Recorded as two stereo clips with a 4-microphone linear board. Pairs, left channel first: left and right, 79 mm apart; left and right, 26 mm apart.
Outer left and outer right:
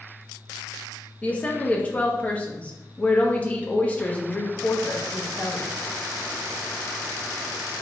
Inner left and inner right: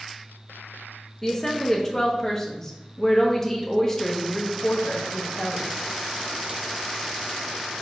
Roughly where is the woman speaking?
Centre.